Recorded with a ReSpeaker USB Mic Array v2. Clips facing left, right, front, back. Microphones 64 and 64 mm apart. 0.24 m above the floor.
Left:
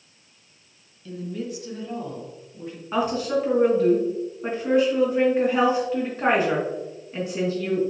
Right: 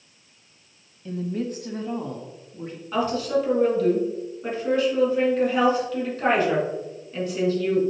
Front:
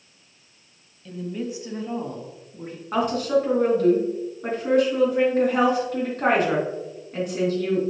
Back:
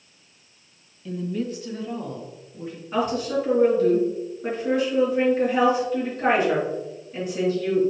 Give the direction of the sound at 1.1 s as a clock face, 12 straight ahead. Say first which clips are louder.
Right 3 dB, back 2 dB; 3 o'clock.